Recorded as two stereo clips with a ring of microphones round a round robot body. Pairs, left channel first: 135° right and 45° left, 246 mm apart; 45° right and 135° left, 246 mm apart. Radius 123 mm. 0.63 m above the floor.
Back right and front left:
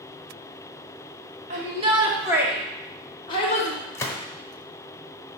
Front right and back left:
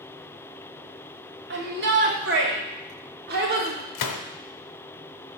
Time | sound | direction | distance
1.5 | a shout | 100° left | 1.8 m
4.0 | a gunshot | 55° right | 0.7 m